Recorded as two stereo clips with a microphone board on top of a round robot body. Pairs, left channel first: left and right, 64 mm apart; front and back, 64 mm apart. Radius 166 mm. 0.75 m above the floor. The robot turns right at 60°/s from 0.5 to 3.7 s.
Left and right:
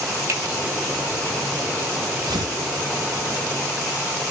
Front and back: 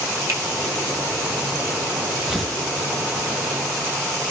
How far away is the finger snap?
About 9 m.